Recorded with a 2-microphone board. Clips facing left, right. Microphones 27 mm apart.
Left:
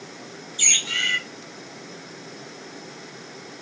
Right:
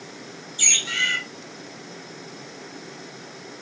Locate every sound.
0.6 s a bird: 10° left (ahead or behind), 1.0 m